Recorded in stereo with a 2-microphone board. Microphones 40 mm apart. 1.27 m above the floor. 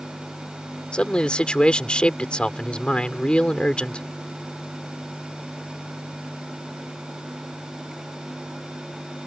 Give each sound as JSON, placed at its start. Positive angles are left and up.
{"t": 0.9, "sound": "a man speaking", "side_deg": 25}